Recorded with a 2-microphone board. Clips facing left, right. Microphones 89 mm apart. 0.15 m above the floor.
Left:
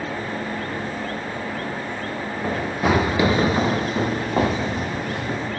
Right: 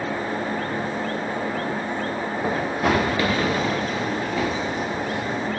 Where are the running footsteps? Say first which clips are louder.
Left 1 dB; 10° right (ahead or behind), 1.2 m; by 5.5 s 55° left (ahead or behind), 2.5 m.